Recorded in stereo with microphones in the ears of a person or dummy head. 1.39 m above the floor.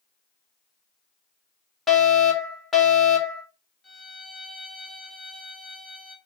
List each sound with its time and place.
1.9 s a fire alarm: 5° left (ahead or behind), 0.9 m
3.8 s a violin: centre (ahead or behind), 1.0 m